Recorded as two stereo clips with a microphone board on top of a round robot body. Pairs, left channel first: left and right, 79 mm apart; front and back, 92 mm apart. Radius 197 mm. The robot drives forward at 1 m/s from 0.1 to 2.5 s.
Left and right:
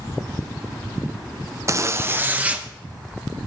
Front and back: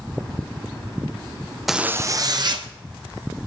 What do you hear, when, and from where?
1.7 s a zipper: 90° right, 0.7 m; by 2.7 s 155° right, 1.1 m